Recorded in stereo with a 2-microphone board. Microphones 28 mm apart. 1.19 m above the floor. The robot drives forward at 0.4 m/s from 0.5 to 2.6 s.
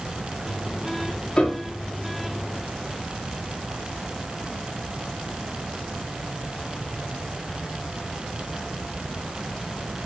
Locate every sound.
1.4 s a piano: 30° left (ahead or behind), 0.8 m